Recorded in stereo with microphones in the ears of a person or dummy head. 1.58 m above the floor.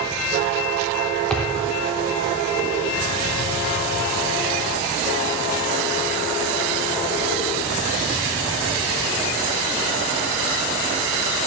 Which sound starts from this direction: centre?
A thud, at 1.3 s.